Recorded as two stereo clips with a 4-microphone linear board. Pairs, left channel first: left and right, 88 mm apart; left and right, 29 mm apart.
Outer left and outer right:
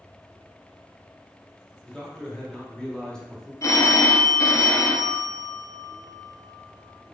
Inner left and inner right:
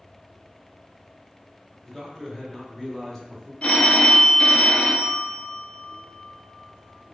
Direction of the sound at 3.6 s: 35° left (ahead or behind).